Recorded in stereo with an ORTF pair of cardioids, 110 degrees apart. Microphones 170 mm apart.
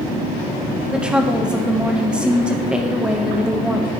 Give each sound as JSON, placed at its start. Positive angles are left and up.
{"t": 0.9, "sound": "a woman speaking", "azimuth_deg": -5, "distance_m": 1.1}